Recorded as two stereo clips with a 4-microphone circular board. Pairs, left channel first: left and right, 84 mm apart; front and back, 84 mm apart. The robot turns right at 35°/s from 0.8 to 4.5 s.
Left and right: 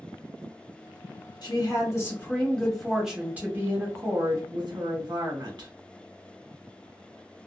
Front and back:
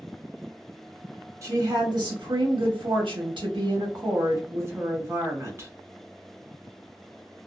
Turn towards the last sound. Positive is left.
turn(degrees=-125)